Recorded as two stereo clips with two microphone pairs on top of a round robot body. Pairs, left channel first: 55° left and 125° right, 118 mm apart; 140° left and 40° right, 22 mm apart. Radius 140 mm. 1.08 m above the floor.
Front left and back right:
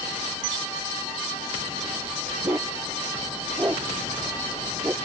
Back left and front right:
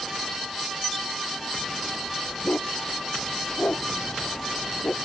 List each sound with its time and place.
2.4 s a dog barking: 165° left; by 5.0 s 160° left